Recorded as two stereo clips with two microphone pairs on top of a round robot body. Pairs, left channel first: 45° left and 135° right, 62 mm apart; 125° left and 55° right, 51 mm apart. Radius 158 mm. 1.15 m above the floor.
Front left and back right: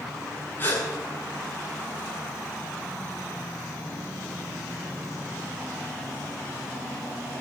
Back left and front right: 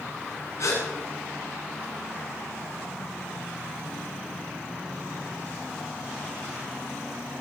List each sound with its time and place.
0.6 s a gasp: 100° left, 8.5 m